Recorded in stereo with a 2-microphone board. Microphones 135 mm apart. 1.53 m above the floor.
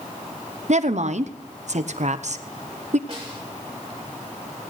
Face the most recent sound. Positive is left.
turn(degrees=-45)  # may be behind; listen again after turning